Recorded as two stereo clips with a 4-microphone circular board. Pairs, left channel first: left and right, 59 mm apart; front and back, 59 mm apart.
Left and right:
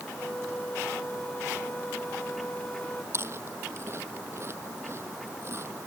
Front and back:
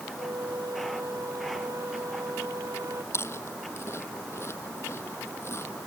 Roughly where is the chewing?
Ahead right.